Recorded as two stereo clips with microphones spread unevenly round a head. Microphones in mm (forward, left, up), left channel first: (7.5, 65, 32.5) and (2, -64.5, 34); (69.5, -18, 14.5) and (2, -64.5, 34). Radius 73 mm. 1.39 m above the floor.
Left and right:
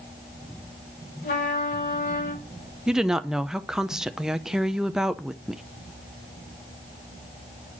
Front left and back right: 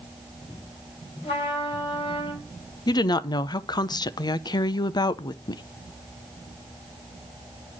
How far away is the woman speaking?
About 0.6 m.